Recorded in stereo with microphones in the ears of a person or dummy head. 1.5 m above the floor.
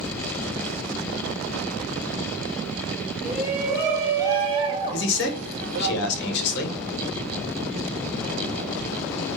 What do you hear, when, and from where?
3.2 s a shout: 5° right (ahead or behind), 1.7 m; by 5.9 s 60° right (ahead or behind), 0.8 m
4.9 s a man speaking: 60° left (ahead or behind), 1.3 m